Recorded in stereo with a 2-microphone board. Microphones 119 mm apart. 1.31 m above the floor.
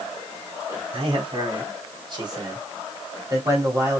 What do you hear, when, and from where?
0.9 s a man speaking: 50° right (ahead or behind), 4 m; by 4.0 s 25° right (ahead or behind), 3.5 m